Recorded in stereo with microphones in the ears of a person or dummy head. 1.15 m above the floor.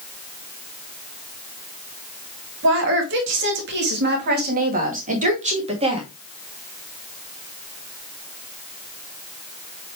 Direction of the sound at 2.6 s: 70° right (ahead or behind).